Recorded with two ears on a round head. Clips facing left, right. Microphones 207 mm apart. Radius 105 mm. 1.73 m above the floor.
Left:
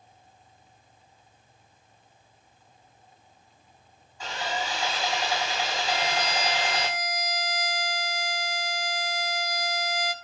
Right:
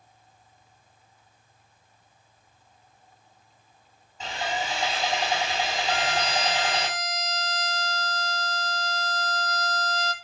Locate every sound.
4.2 s sawing: 20° right (ahead or behind), 8 m
5.9 s a violin: 10° left (ahead or behind), 1.1 m